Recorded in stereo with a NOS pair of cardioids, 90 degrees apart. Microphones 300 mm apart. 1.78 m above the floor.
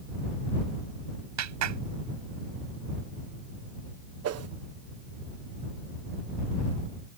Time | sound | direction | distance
1.4 | a clap | 65° right | ?
4.2 | a whoosh | 55° right | ?